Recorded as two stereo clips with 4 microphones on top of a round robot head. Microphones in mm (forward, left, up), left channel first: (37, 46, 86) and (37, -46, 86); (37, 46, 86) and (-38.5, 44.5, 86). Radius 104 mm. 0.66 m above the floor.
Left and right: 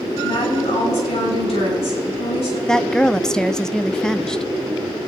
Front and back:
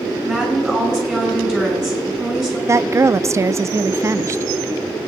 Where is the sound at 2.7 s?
170° left, 0.6 m.